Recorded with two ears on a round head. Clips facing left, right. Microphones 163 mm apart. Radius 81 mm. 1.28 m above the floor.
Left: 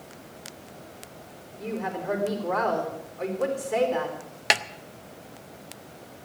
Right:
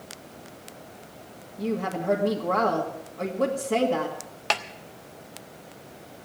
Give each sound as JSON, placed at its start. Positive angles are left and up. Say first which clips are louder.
{"t": 1.6, "sound": "a woman speaking", "louder": "right 3 dB", "side_deg": -65, "distance_m": 2.0}
{"t": 4.5, "sound": "a snare drum", "louder": "left 1 dB", "side_deg": 20, "distance_m": 0.5}